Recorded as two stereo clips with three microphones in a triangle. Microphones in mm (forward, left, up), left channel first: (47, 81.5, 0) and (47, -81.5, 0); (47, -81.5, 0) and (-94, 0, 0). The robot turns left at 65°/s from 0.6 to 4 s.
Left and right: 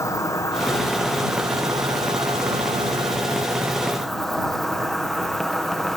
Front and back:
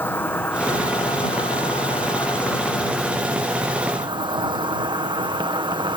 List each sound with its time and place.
0.0 s an insect: 35° left; by 6.0 s 175° left